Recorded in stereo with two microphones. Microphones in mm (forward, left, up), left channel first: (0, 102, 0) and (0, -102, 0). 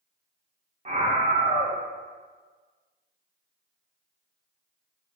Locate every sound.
0.8 s a scream: 35° right (ahead or behind), 0.5 m